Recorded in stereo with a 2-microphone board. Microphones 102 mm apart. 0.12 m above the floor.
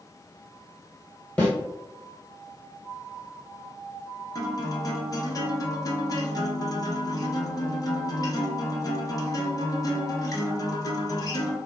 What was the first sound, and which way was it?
A snare drum, 15° left (ahead or behind).